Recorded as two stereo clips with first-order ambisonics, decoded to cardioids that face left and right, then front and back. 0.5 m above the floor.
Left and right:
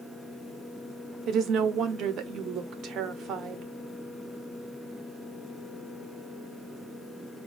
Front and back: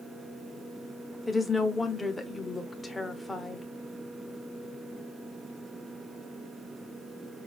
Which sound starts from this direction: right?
A woman speaking, at 1.3 s.